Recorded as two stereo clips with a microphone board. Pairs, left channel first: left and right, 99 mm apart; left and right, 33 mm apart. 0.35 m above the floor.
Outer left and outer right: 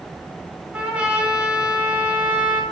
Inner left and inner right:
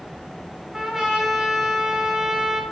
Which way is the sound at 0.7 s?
10° right (ahead or behind).